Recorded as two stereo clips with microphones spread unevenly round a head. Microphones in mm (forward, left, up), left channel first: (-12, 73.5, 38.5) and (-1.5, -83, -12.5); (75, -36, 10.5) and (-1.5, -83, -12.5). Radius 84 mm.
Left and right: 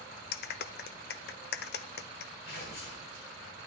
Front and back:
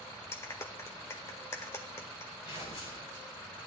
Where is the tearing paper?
70° left, 8.5 m.